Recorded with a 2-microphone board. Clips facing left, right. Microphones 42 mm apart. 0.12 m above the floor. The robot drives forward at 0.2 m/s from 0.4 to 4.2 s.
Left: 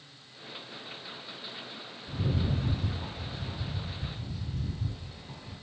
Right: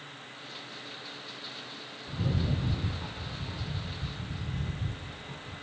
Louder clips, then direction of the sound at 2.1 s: Even; 25° right (ahead or behind).